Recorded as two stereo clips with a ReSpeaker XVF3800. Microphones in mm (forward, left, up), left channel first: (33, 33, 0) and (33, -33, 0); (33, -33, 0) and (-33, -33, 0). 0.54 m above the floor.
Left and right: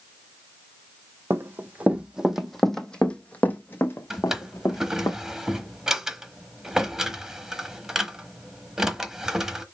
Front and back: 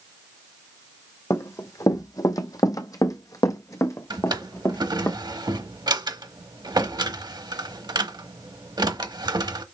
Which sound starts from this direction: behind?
A drawer, at 4.1 s.